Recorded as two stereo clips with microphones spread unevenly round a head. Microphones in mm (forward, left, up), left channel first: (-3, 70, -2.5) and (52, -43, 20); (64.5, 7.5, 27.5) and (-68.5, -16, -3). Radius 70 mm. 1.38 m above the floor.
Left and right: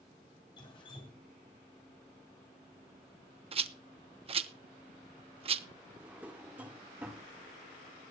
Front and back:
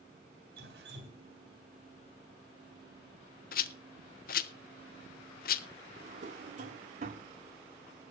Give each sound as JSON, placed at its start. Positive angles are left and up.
{"t": 0.6, "sound": "dripping", "azimuth_deg": 180, "distance_m": 3.5}
{"t": 3.5, "sound": "a rattle", "azimuth_deg": -15, "distance_m": 0.8}
{"t": 6.0, "sound": "a drawer", "azimuth_deg": -130, "distance_m": 1.3}